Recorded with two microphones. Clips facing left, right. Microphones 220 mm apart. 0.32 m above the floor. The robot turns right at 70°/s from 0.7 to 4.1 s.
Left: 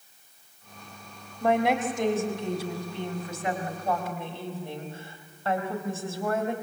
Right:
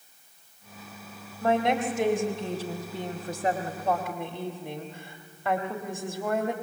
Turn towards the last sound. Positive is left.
turn(degrees=-20)